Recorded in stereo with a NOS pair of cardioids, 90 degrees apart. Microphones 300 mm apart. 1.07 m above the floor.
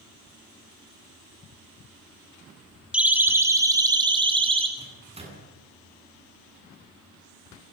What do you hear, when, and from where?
2.9 s a siren: 5° right, 3 m; by 4.7 s 20° right, 4.5 m
4.8 s a microwave: 20° right, 9 m